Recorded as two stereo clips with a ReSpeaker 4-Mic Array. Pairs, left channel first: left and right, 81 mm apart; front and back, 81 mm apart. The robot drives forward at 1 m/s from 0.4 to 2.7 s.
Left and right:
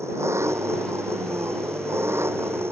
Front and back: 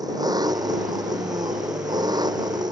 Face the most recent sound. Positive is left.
turn(degrees=-150)